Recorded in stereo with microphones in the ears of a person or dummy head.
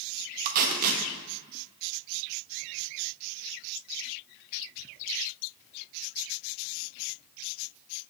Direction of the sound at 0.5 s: 50° right (ahead or behind).